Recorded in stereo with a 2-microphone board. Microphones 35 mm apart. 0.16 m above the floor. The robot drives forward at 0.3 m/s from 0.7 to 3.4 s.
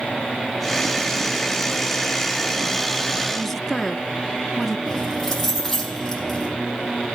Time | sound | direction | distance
3.3 | a woman speaking | 5° left (ahead or behind) | 1.2 m
4.9 | keys jangling | 10° left (ahead or behind) | 4 m